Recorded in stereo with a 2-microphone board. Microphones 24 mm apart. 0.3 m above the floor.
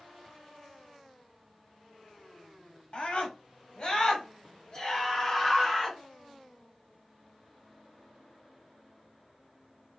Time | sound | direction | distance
2.9 | a scream | 55° left (ahead or behind) | 1.4 m